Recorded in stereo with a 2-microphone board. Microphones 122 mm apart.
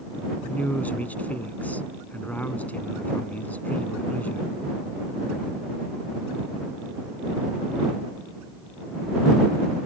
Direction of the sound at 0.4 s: 15° left (ahead or behind).